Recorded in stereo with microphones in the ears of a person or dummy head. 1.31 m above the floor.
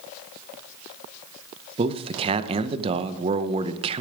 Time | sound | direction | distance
1.8 | a man speaking | 30° right (ahead or behind) | 0.8 m